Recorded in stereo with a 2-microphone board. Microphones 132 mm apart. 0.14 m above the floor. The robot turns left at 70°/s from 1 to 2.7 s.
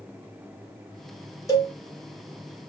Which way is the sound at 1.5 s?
25° left (ahead or behind).